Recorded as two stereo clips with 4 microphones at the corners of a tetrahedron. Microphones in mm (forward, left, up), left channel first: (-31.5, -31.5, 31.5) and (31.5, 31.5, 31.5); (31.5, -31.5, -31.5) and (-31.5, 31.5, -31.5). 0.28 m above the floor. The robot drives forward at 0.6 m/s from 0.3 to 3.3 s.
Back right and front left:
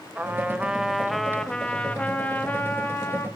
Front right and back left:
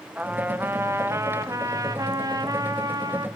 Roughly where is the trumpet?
Left.